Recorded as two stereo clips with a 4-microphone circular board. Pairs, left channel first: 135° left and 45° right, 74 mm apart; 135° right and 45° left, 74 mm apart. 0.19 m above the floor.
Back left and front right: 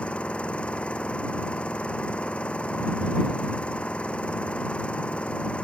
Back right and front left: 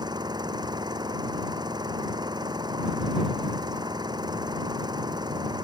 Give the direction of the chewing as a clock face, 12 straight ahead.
No chewing in this recording.